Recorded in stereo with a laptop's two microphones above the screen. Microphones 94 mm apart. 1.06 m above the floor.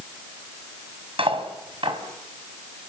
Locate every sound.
1.2 s cutlery clinking: 80° right, 4 m